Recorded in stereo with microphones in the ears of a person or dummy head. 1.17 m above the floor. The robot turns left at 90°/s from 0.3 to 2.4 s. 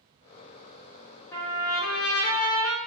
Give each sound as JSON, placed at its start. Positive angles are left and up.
{"t": 1.3, "sound": "a trumpet", "azimuth_deg": 165, "distance_m": 0.5}